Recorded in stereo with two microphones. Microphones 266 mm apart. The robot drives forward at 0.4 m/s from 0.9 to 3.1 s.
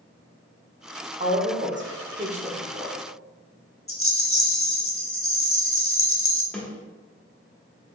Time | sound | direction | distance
1.2 | a woman speaking | 30° right (ahead or behind) | 0.7 m
3.9 | a rattle | 55° left (ahead or behind) | 0.8 m
6.5 | a snare drum | 5° left (ahead or behind) | 1.3 m